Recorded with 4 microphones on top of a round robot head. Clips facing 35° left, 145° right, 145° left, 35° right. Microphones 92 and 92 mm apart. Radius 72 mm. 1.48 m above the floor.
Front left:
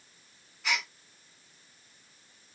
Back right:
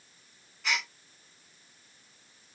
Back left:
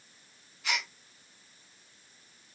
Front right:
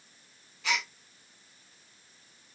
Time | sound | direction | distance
0.6 | a gasp | 50° right | 1.1 m